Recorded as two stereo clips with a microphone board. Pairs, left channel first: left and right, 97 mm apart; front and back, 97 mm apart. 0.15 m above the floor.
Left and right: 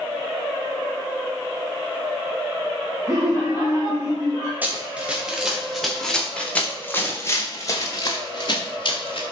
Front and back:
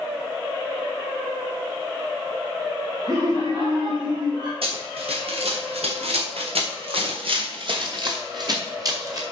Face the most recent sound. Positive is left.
turn(degrees=125)